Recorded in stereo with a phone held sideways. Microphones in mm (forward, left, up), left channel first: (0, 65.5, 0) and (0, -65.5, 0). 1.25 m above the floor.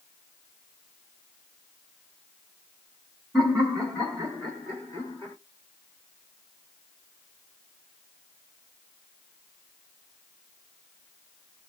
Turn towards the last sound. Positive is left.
turn(degrees=25)  # may be behind; listen again after turning